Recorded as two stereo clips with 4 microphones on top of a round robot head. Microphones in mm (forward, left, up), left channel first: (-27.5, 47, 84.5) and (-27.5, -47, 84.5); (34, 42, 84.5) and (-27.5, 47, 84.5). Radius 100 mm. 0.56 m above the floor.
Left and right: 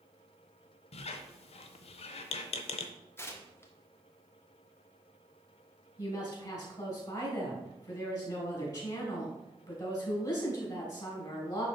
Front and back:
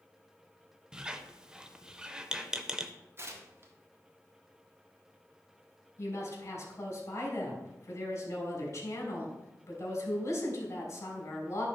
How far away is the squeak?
About 0.5 m.